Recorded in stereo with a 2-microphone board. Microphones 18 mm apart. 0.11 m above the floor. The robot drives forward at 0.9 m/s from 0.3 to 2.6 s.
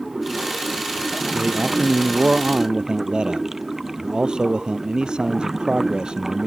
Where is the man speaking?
60° right (ahead or behind); by 6.5 s 55° right (ahead or behind).